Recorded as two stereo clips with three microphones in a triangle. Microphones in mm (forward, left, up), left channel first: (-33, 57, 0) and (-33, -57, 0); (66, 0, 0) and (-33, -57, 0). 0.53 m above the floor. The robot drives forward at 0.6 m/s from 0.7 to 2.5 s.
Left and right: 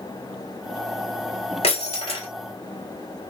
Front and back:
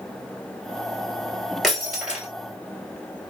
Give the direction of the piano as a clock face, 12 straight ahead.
No piano in this recording.